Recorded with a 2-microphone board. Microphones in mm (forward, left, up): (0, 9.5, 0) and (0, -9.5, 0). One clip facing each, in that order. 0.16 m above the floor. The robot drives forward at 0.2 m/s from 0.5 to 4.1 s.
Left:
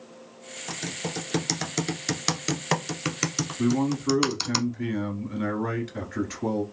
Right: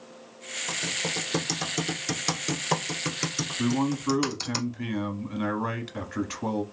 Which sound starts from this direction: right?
A man speaking, at 3.6 s.